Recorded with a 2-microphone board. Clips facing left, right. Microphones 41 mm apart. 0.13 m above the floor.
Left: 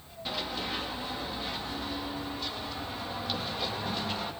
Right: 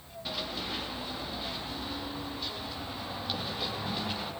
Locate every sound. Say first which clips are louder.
0.2 s running footsteps: left 2 dB; centre (ahead or behind), 9 m; by 4.3 s 10° right (ahead or behind), 11 m